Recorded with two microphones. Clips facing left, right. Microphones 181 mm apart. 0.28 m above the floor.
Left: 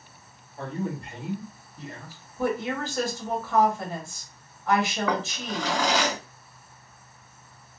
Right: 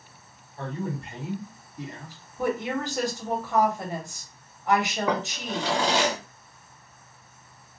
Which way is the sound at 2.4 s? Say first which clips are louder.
Even; 20° right (ahead or behind).